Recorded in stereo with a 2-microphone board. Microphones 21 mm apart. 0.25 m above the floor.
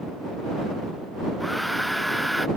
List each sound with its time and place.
1.4 s a hair dryer: centre (ahead or behind)